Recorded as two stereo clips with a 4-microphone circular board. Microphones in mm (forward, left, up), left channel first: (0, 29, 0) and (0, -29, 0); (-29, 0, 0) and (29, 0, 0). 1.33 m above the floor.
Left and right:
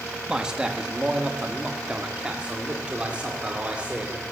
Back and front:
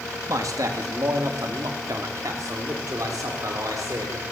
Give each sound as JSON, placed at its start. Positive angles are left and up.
{"t": 0.3, "sound": "a man speaking", "azimuth_deg": -10, "distance_m": 2.5}